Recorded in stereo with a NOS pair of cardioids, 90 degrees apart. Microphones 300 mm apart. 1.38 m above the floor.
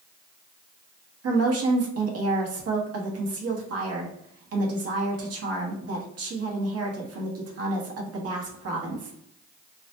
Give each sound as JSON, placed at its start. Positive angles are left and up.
{"t": 1.2, "sound": "a woman speaking", "azimuth_deg": -50, "distance_m": 1.3}